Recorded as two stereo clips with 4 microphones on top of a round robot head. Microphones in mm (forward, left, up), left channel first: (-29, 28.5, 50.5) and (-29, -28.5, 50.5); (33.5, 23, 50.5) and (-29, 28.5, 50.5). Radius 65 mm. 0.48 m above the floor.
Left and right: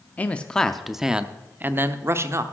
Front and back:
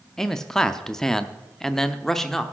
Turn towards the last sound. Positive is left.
turn(degrees=-90)